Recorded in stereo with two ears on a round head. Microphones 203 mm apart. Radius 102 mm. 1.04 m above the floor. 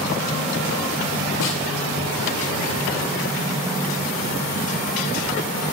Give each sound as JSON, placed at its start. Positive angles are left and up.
{"t": 1.4, "sound": "a snare drum", "side_deg": 85, "distance_m": 1.3}